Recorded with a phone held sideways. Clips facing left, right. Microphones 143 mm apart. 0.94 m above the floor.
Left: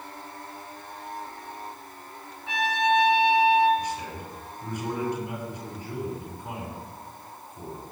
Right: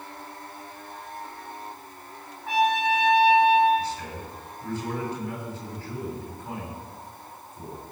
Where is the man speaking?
20° left (ahead or behind), 6 m.